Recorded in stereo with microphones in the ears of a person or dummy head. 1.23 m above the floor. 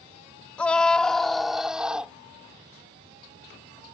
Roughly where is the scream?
Centre.